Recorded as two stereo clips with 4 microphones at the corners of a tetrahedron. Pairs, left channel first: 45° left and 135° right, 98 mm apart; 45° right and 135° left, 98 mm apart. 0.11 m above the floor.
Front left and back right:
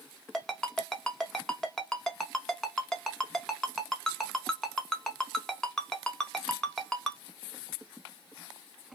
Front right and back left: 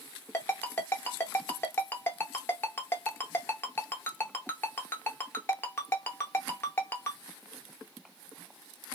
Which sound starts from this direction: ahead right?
A ringtone, at 0.3 s.